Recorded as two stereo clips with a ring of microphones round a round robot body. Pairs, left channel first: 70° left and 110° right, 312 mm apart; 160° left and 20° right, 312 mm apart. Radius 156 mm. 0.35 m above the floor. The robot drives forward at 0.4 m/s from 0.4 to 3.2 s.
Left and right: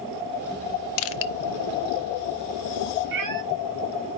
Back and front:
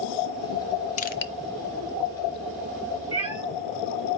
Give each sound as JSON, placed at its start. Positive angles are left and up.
{"t": 1.0, "sound": "crushing", "azimuth_deg": 95, "distance_m": 0.5}
{"t": 3.1, "sound": "a cat meowing", "azimuth_deg": -135, "distance_m": 0.9}